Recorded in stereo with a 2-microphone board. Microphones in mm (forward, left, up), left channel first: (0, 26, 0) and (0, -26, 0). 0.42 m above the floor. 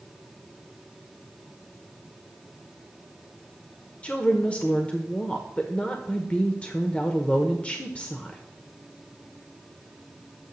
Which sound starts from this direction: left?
A woman speaking, at 4.0 s.